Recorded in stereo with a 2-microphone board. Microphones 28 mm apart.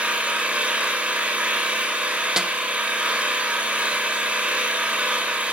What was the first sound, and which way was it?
An engine running, 55° right (ahead or behind).